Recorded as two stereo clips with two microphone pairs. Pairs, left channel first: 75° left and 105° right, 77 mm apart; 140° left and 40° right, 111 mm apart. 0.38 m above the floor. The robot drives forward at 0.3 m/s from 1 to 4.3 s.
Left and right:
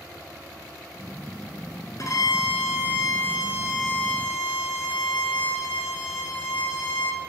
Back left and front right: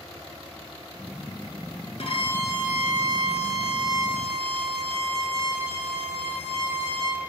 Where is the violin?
115° left, 1.2 m; by 7.2 s 140° left, 1.6 m.